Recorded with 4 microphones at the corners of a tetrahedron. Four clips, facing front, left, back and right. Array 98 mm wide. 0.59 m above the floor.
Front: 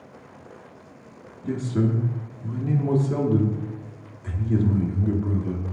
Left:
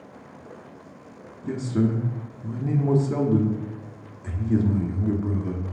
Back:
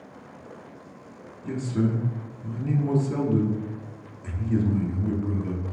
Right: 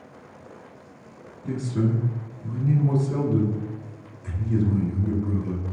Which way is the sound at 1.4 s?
70° left.